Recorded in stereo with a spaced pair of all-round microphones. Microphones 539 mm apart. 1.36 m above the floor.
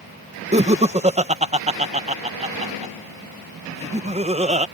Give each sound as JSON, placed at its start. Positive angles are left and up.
{"t": 0.5, "sound": "laughter", "side_deg": -15}